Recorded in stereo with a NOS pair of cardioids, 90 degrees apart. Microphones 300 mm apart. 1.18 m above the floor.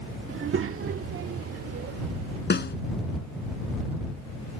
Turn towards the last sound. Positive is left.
turn(degrees=35)